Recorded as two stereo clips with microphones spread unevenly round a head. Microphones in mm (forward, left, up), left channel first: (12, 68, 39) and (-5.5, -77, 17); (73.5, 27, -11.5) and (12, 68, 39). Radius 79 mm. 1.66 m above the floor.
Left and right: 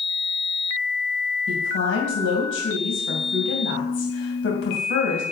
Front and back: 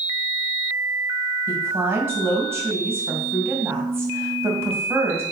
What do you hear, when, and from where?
1.5 s a woman speaking: 90° left, 2.5 m